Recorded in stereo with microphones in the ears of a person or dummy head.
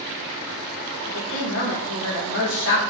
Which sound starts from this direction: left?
A woman speaking, at 1.1 s.